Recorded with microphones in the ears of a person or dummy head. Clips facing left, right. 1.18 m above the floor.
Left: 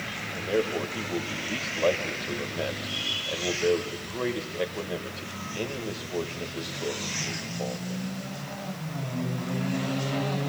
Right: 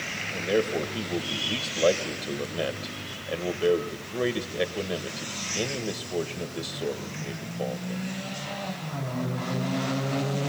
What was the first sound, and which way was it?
A man speaking, 20° right (ahead or behind).